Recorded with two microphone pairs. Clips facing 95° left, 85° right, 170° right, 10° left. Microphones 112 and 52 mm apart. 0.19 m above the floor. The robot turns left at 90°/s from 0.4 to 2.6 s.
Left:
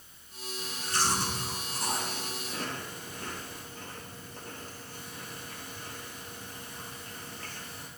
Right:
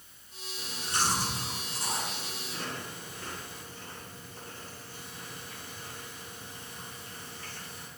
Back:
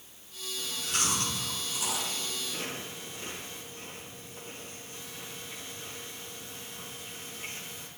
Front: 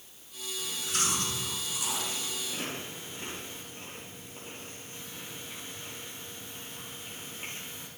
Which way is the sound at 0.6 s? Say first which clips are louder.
Even, even; 115° right.